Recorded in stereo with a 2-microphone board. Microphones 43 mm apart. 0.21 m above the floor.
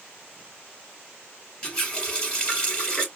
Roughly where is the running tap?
Centre.